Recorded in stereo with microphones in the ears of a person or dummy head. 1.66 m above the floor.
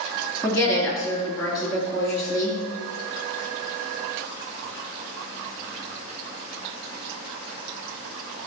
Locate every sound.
0.4 s a woman speaking: 10° left (ahead or behind), 3.5 m